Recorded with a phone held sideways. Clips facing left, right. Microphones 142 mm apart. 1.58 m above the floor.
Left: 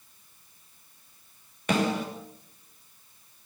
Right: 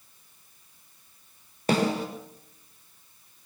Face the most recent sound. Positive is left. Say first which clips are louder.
# right 2 dB
turn(degrees=-35)  # may be behind; listen again after turning